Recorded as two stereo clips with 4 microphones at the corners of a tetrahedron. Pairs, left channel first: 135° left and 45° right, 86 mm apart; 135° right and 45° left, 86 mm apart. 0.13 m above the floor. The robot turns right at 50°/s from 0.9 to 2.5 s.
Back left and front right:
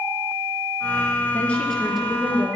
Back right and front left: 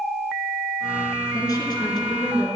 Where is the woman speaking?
160° right, 2.5 m; by 2.6 s 105° right, 2.5 m.